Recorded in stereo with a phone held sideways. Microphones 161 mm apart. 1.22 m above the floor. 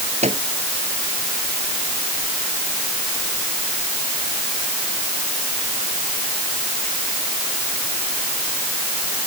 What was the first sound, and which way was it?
A microwave, 45° right (ahead or behind).